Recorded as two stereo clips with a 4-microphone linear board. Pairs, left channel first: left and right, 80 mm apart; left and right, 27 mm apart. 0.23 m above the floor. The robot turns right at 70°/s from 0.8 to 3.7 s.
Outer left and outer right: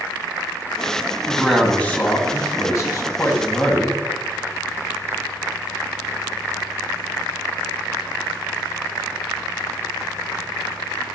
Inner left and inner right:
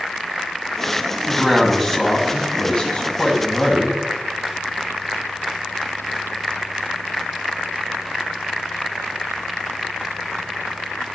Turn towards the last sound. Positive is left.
turn(degrees=160)